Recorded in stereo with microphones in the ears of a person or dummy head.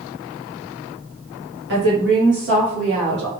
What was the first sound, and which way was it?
A woman speaking, 55° right (ahead or behind).